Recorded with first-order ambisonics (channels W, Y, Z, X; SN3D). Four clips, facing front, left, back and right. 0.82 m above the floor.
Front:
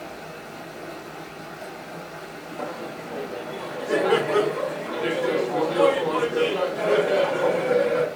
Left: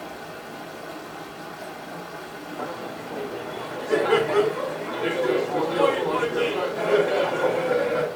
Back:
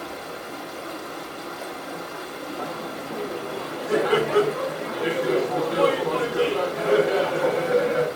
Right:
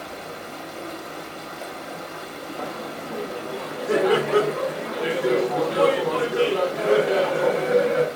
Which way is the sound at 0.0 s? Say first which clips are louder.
Right 2 dB, back 3 dB; 125° right.